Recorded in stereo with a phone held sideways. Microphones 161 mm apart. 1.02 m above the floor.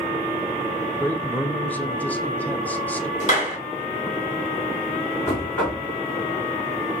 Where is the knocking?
15° left (ahead or behind), 3 m.